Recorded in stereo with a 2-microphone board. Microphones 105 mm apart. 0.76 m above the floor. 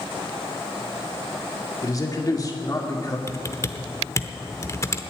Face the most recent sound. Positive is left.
turn(degrees=30)  # may be behind; listen again after turning